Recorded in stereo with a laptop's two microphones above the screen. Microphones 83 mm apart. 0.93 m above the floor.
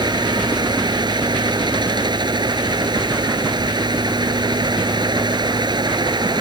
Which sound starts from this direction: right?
A fan, at 0.0 s.